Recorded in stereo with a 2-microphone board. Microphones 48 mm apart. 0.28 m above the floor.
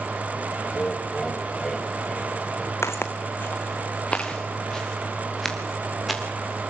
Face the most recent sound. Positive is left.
turn(degrees=0)  # may be behind; listen again after turning